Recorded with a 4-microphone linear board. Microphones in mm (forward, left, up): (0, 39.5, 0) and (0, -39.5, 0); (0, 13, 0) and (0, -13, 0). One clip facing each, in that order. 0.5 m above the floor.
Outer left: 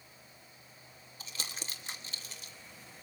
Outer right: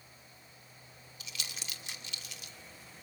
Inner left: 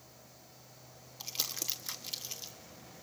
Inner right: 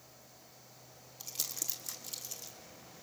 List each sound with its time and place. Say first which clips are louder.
1.2 s crumpling: outer left 2 dB, inner left 4 dB; 35° left (ahead or behind), 1.5 m